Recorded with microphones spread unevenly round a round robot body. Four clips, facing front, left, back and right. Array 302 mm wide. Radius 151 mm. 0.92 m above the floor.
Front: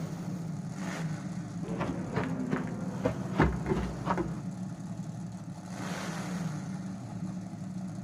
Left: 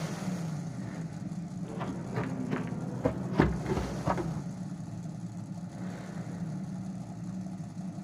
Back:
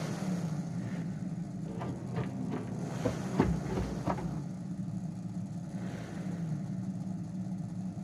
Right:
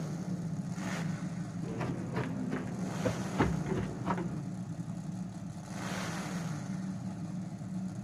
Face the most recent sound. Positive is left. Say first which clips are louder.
# left 2 dB, front 5 dB
turn(degrees=20)